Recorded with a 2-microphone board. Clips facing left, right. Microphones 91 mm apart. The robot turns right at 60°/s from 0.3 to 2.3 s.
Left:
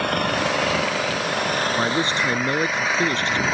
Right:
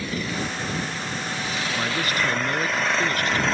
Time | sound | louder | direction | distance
0.0 | an engine running | left 7 dB | 55° left | ?
1.7 | a man speaking | left 4 dB | 30° left (ahead or behind) | ?